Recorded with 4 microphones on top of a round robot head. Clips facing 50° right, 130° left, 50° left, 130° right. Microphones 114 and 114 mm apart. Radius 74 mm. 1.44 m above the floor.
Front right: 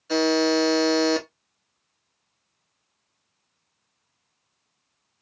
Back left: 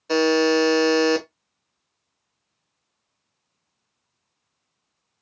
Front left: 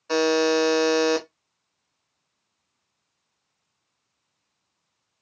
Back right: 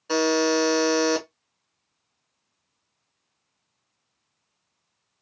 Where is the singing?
No singing in this recording.